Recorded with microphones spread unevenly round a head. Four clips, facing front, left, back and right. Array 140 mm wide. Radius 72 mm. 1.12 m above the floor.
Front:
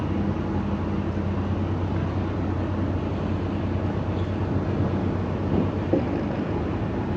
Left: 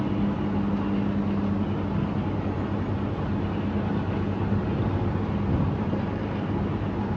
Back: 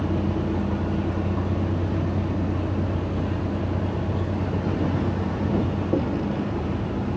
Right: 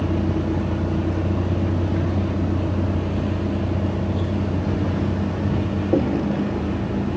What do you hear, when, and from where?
0.0 s a vehicle: 90° right; by 7.2 s 45° right